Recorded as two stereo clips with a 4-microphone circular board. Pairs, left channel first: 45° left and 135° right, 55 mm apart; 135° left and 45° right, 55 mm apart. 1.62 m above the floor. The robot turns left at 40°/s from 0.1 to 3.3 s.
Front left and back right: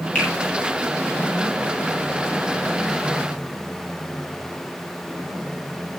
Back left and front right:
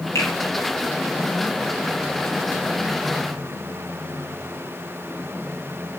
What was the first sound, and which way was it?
A finger snap, 110° left.